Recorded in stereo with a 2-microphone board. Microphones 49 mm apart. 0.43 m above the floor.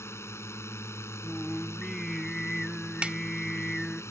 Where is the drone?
65° left (ahead or behind); by 4.1 s 70° left (ahead or behind).